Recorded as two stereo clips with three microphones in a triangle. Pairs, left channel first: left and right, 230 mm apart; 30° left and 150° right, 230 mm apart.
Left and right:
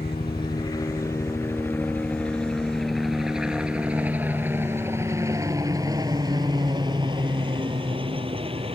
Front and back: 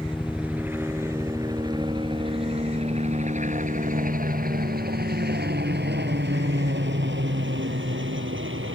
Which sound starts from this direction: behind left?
A helicopter, at 0.0 s.